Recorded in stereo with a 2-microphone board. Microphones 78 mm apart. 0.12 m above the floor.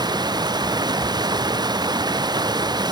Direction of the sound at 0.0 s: 60° right (ahead or behind).